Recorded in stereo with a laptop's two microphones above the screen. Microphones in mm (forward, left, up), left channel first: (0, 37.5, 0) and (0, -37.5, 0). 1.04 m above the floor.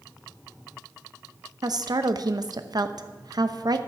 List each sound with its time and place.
1.6 s a woman speaking: 60° right (ahead or behind), 0.8 m